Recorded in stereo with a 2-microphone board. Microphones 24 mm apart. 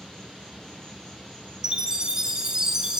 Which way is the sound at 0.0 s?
35° left (ahead or behind).